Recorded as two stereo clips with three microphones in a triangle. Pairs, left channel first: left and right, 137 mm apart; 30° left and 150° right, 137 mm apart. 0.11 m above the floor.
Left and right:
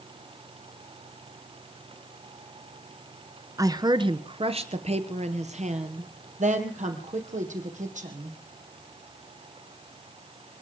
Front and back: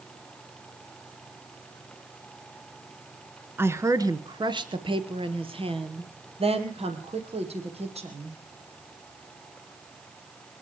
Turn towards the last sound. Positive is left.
turn(degrees=-110)